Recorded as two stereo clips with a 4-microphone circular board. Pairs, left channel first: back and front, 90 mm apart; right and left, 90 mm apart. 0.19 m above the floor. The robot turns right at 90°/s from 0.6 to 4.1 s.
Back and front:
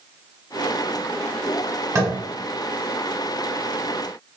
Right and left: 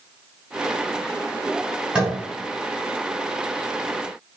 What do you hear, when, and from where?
1.9 s tapping: 15° left, 1.7 m; by 2.1 s 30° left, 1.7 m